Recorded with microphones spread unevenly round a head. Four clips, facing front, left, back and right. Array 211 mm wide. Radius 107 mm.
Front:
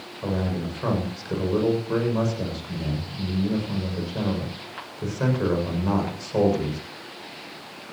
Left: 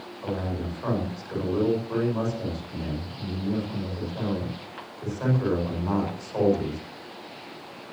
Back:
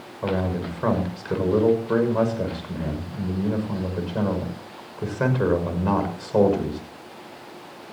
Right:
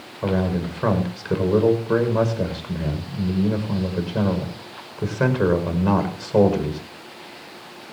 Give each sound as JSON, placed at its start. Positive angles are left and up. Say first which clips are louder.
{"t": 0.2, "sound": "a man speaking", "louder": "right 8 dB, back 2 dB", "azimuth_deg": -95, "distance_m": 6.5}